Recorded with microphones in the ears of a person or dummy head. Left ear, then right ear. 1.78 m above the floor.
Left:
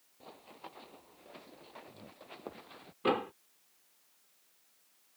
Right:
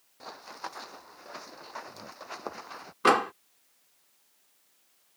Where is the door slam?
60° right (ahead or behind).